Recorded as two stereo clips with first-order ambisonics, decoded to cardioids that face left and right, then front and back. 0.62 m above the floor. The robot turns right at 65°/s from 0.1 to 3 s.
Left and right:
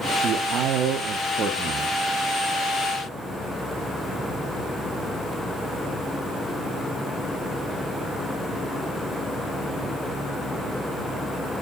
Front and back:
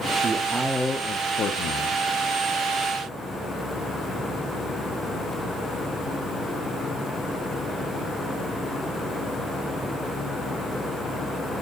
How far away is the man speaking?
About 0.9 m.